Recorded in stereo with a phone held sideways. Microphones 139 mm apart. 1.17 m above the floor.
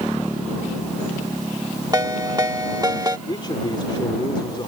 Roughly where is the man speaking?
Left.